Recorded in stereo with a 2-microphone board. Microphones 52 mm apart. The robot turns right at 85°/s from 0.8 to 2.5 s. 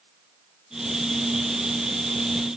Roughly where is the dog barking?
No dog barking in this recording.